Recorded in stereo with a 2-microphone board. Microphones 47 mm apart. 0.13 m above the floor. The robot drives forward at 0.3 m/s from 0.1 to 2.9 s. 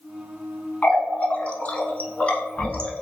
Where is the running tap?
25° left (ahead or behind), 0.8 m; by 3.0 s 20° left (ahead or behind), 1.0 m.